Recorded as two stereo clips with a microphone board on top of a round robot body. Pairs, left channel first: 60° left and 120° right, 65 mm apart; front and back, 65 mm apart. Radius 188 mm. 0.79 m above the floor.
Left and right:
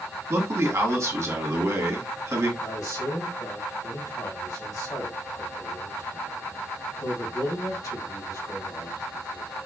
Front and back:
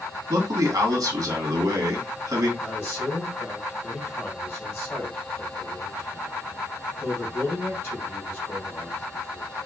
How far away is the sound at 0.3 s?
About 1.5 m.